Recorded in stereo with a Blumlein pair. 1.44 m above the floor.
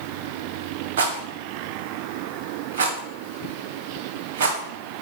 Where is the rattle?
60° right, 1.6 m.